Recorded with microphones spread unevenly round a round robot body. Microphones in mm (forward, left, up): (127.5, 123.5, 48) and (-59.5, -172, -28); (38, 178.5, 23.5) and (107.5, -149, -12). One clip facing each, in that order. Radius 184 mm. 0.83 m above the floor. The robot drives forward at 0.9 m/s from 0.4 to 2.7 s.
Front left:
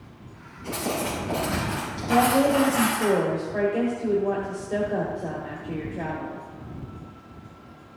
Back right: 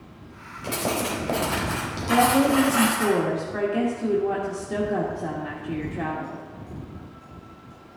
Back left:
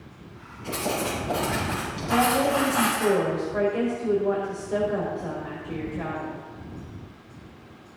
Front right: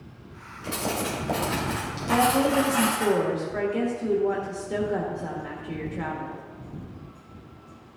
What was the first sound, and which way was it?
Writing, 105° right.